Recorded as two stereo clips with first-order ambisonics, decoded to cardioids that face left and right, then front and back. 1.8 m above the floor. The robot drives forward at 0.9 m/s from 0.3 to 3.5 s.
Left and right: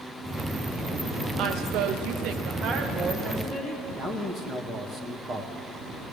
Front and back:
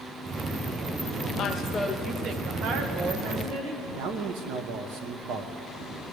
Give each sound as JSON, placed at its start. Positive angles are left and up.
{"t": 1.4, "sound": "a woman speaking", "azimuth_deg": -50, "distance_m": 0.9}
{"t": 4.0, "sound": "a man speaking", "azimuth_deg": -170, "distance_m": 1.2}